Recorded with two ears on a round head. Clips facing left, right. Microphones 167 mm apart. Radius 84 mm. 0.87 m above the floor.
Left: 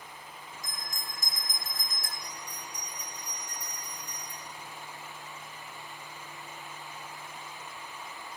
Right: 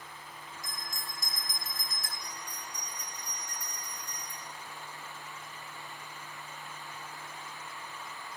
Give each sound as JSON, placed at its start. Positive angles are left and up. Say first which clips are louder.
{"t": 0.6, "sound": "a bell", "louder": "even", "side_deg": 35, "distance_m": 1.4}
{"t": 2.2, "sound": "a bell", "louder": "left 1 dB", "side_deg": -35, "distance_m": 3.0}